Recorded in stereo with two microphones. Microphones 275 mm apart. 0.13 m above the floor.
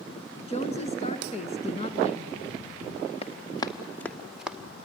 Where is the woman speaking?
25° left (ahead or behind), 1.3 m.